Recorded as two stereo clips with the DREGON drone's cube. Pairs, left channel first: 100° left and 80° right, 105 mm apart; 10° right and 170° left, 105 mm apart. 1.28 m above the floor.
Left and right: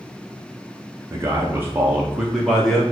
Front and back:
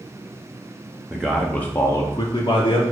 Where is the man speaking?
120° right, 0.6 m; by 2.8 s 15° left, 0.8 m.